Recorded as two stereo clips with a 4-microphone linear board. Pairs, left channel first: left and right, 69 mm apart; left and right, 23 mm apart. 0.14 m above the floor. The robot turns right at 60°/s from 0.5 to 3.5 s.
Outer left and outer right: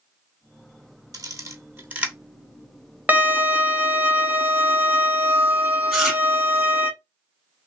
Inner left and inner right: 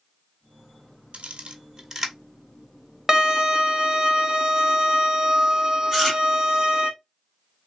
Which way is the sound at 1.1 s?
65° right (ahead or behind).